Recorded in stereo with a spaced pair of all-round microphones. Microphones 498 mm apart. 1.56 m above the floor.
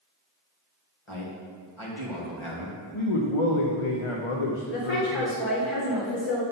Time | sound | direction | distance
1.1 | a man speaking | 70° left (ahead or behind) | 1.9 m
2.9 | a man speaking | 80° left | 0.8 m
4.7 | a woman speaking | 60° left (ahead or behind) | 2.5 m